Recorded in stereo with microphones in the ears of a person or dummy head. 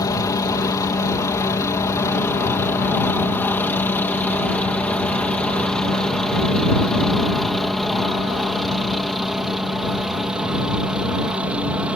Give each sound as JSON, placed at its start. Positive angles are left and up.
{"t": 0.0, "sound": "a helicopter", "side_deg": 20}